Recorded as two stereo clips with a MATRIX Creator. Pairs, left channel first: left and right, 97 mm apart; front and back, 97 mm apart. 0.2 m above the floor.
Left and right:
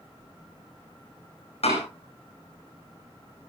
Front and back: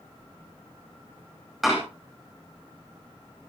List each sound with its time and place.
1.6 s a door slam: 90° left, 9.5 m